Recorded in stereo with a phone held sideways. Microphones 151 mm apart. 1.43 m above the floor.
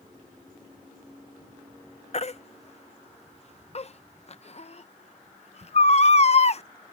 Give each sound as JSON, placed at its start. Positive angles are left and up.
{"t": 2.1, "sound": "a baby crying", "side_deg": 45}